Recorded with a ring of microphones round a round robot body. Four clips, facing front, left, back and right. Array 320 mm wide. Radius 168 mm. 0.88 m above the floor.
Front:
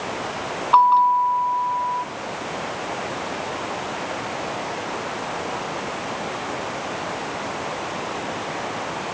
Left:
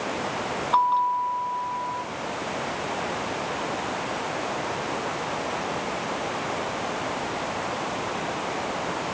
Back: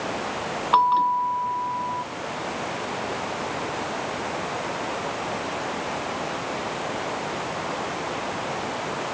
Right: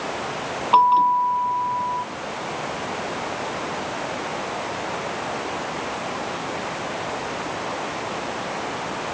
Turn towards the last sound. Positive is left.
turn(degrees=-120)